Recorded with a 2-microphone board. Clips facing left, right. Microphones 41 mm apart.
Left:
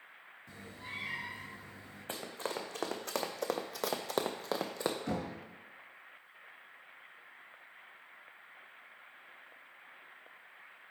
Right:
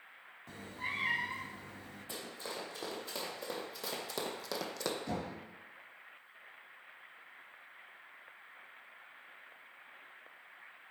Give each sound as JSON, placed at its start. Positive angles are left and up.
{"t": 0.5, "sound": "a cat meowing", "side_deg": -75, "distance_m": 0.7}
{"t": 2.1, "sound": "running footsteps", "side_deg": 55, "distance_m": 1.5}
{"t": 5.1, "sound": "knocking", "side_deg": 65, "distance_m": 3.0}